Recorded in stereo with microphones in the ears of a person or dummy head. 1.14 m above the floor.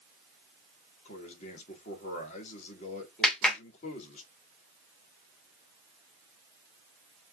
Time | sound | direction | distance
1.1 | a man speaking | 45° left (ahead or behind) | 3.5 m
3.2 | a clap | 5° left (ahead or behind) | 2.5 m